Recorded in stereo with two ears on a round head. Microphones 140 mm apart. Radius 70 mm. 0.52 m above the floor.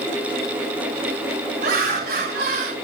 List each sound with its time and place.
1.6 s laughter: 65° right (ahead or behind), 4 m; by 2.7 s 70° right (ahead or behind), 3.5 m